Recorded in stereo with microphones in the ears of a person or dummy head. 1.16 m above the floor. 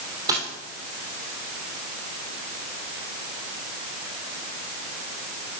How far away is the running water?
No running water in this recording.